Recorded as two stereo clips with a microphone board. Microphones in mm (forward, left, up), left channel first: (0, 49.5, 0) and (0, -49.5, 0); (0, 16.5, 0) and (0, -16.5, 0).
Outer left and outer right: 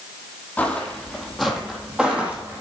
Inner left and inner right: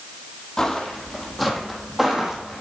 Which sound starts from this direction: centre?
Footsteps, at 0.6 s.